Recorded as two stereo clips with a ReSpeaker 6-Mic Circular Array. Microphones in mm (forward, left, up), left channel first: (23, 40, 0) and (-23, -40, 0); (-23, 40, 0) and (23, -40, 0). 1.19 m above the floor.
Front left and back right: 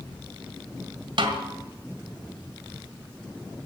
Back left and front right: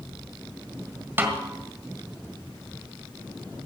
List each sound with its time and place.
1.2 s a snare drum: 125° right, 1.9 m